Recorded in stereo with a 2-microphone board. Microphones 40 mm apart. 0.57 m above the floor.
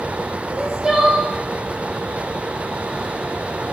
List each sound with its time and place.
0.5 s crying: 15° right (ahead or behind), 6.5 m